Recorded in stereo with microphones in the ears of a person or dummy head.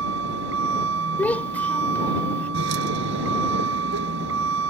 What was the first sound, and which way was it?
A vehicle, 70° right (ahead or behind).